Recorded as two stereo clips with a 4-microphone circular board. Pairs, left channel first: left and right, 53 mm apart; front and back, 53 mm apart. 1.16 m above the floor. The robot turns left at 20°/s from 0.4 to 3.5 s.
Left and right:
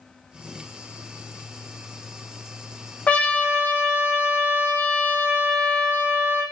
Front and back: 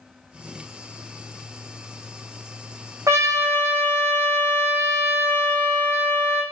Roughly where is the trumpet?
Behind left.